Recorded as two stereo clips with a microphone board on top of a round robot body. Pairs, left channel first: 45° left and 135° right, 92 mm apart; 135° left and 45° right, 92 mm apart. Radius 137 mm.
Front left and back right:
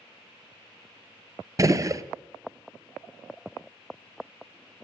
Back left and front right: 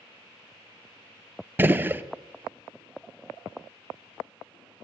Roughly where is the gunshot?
Right.